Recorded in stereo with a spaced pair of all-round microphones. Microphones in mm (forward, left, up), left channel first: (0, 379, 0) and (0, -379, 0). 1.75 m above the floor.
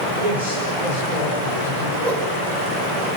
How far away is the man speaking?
About 8.5 m.